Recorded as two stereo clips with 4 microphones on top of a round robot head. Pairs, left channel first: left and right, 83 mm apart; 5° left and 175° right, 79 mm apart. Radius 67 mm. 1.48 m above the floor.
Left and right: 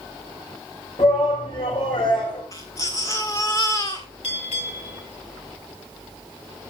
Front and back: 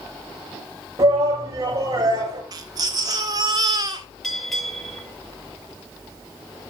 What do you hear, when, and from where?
1.0 s a shout: 135° left, 6 m
2.5 s a baby crying: 155° left, 1.6 m
4.2 s a bell: 90° left, 9.5 m